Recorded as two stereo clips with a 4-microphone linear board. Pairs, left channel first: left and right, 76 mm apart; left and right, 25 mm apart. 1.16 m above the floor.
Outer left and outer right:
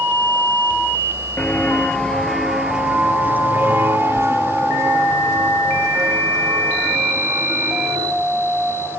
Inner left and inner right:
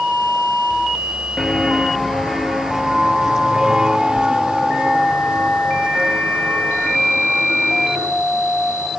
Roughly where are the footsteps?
Left.